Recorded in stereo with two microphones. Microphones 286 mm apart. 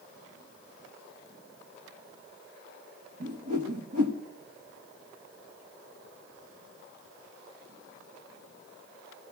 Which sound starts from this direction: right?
A whoosh, at 3.2 s.